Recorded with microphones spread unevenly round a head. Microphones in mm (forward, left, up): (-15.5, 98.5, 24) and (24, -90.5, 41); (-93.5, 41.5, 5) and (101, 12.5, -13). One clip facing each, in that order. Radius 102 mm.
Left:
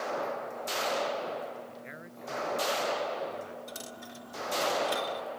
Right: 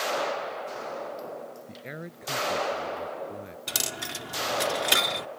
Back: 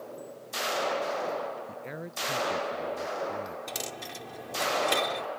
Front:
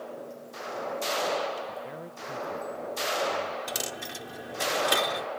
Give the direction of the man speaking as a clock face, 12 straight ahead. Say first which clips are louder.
Right 5 dB, front 1 dB; 4 o'clock.